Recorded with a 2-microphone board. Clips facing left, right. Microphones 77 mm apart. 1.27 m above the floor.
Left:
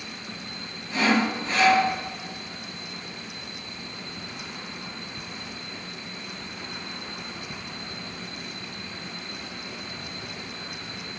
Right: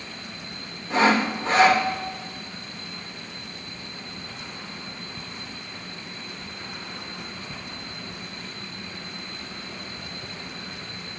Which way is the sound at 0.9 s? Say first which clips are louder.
Right 3 dB; 85° right.